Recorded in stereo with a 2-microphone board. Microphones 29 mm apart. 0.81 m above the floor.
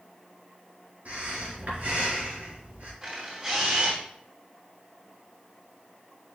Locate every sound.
1.1 s breathing: 50° right (ahead or behind), 4 m
3.0 s a camera shutter: 30° right (ahead or behind), 4 m